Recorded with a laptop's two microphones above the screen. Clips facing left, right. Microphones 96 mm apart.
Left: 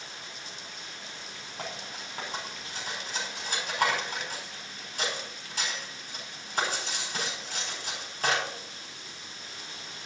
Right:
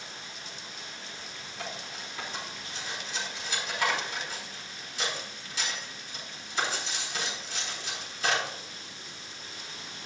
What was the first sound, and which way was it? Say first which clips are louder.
Cutlery clinking: left 1 dB; 50° left (ahead or behind).